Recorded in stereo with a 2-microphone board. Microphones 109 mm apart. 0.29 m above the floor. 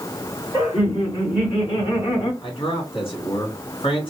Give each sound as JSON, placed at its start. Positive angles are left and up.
{"t": 0.5, "sound": "laughter", "side_deg": 55, "distance_m": 2.5}
{"t": 2.4, "sound": "a man speaking", "side_deg": 60, "distance_m": 2.5}